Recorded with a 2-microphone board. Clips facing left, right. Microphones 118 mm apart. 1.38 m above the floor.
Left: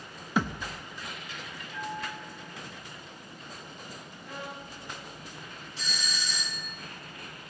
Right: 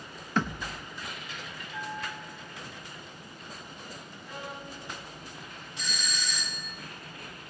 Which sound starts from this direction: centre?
A thud, at 0.4 s.